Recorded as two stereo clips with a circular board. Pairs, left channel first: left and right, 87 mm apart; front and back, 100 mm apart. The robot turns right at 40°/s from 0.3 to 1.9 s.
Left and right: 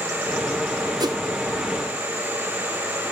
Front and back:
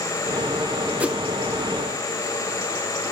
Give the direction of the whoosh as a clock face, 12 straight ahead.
4 o'clock.